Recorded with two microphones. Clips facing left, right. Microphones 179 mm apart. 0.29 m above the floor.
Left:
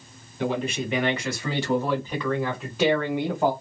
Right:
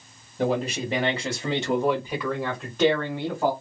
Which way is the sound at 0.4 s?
45° right (ahead or behind).